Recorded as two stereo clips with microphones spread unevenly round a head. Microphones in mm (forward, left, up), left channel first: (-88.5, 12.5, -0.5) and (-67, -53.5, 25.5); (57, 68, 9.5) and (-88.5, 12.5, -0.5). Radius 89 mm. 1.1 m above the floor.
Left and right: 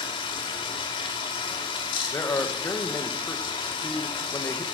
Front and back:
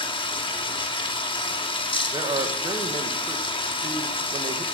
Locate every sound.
0.0 s running water: 75° left, 1.2 m
2.1 s a man speaking: 140° left, 1.2 m